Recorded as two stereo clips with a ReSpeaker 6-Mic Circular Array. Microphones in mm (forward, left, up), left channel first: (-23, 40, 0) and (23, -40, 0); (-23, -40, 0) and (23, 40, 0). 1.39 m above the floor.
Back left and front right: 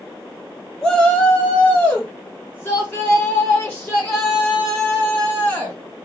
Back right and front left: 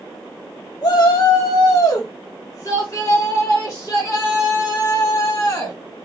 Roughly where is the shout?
Behind right.